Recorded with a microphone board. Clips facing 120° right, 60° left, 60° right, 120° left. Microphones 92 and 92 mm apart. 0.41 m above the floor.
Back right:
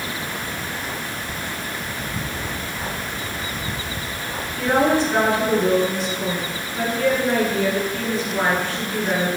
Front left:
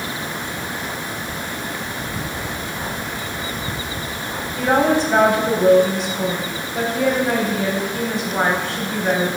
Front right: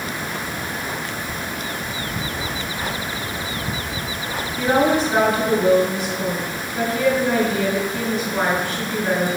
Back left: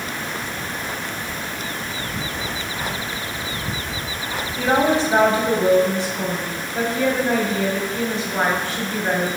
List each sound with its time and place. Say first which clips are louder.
4.6 s a woman speaking: front left 1 dB, front right 1 dB; 65° left, 2 m